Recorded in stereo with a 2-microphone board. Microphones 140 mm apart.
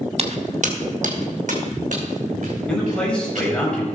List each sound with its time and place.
0.2 s footsteps: 50° right (ahead or behind), 1.1 m; by 3.5 s 55° right (ahead or behind), 5 m
2.7 s a man speaking: 5° left (ahead or behind), 4 m